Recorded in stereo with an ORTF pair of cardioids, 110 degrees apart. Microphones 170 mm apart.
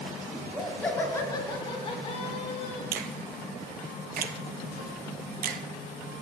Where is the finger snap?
60° right, 0.6 m.